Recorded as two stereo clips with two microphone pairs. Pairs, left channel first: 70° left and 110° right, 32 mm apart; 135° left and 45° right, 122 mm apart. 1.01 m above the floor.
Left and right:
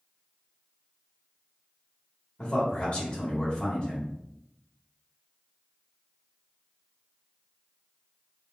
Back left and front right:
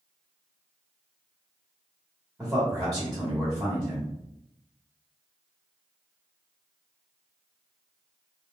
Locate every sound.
2.4 s a man speaking: 35° left, 1.1 m